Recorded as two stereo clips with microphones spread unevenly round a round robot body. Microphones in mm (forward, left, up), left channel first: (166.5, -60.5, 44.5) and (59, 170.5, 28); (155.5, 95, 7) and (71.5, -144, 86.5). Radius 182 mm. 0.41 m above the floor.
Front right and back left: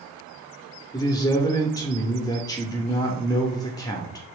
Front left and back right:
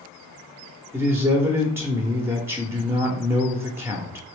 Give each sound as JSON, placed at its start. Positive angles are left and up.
{"t": 0.9, "sound": "a man speaking", "azimuth_deg": 0, "distance_m": 0.8}